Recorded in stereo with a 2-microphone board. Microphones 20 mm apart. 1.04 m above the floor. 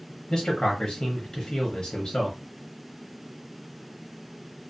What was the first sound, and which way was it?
A man speaking, 60° left (ahead or behind).